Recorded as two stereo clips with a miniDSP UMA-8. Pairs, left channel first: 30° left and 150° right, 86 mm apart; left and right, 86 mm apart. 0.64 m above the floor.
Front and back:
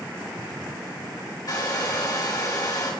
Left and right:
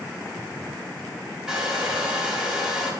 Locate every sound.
1.5 s a hair dryer: 10° right, 3.5 m